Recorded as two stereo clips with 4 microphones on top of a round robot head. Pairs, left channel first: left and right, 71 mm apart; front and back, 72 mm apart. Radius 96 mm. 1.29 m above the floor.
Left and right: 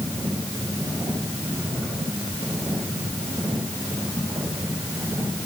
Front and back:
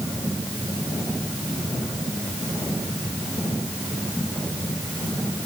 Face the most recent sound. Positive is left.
No sound to turn to.